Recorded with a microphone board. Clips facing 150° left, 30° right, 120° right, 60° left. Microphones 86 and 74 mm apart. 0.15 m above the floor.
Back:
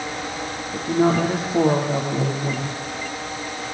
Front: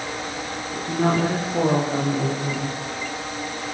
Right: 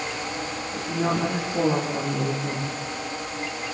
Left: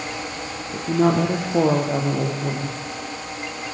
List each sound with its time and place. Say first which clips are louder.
0.7 s a woman speaking: back 3 dB, left 7 dB; 75° left, 6 m